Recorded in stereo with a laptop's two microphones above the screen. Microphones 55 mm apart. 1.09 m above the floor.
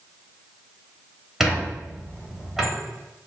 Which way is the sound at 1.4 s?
10° right (ahead or behind).